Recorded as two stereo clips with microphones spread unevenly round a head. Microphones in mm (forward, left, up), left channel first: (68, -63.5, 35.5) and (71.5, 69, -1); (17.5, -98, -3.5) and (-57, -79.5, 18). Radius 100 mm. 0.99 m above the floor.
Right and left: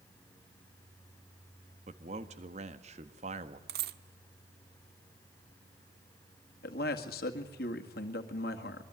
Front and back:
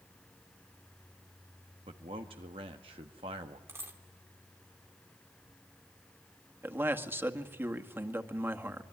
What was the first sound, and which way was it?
A man speaking, 130° left.